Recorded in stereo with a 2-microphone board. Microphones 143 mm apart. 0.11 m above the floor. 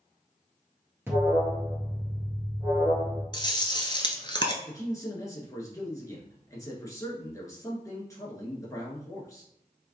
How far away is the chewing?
About 0.7 m.